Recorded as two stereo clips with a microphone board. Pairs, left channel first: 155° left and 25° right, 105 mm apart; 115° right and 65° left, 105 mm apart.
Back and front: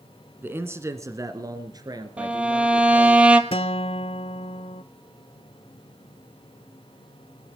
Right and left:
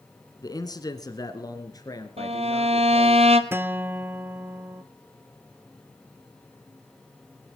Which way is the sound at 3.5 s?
135° left.